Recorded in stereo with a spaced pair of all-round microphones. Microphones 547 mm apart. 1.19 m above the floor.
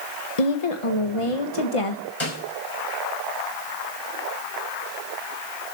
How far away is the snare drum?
About 5.5 m.